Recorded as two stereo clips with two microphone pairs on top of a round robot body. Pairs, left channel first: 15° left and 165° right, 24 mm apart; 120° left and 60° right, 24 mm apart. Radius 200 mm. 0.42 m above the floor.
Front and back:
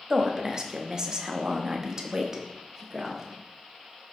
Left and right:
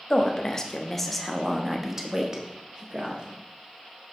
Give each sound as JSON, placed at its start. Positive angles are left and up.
{"t": 0.1, "sound": "a woman speaking", "azimuth_deg": 150, "distance_m": 1.3}